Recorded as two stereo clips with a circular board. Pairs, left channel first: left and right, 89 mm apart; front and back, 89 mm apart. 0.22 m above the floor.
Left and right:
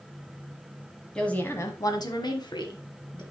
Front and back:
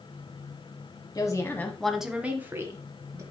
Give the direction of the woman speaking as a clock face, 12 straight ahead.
12 o'clock.